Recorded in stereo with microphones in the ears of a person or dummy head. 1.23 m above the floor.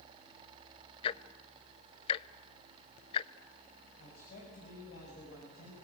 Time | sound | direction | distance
1.0 | ticking | 30° left (ahead or behind) | 0.6 m
4.0 | a man speaking | 50° left (ahead or behind) | 6.5 m